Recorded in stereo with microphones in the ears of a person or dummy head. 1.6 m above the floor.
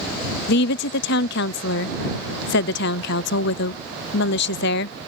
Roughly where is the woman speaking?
Left.